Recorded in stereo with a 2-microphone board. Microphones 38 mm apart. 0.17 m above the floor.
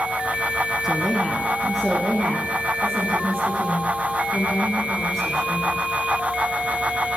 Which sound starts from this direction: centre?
A woman speaking, at 0.8 s.